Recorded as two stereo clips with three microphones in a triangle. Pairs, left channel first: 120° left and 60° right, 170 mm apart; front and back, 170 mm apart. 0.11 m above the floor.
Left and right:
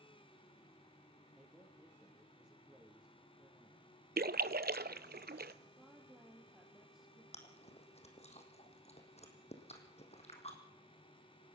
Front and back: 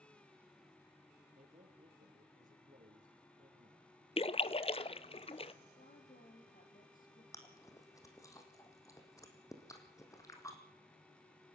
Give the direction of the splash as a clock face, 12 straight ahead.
2 o'clock.